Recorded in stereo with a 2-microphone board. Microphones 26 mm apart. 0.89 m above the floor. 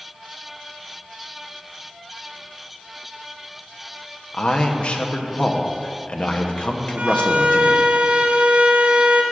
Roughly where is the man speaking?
Left.